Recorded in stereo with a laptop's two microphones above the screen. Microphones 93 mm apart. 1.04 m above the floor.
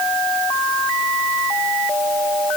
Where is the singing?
I don't hear singing.